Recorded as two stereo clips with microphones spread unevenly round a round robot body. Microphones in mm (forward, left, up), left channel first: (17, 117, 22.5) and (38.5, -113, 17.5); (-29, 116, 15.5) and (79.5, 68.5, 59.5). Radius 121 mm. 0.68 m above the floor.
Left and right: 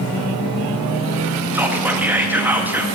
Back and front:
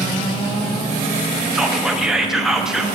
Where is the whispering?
155° right, 0.5 m.